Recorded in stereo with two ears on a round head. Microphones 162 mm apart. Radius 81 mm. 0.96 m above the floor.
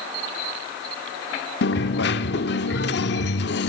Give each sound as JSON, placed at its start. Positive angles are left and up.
{"t": 1.6, "sound": "a dropped coin", "side_deg": 65, "distance_m": 1.4}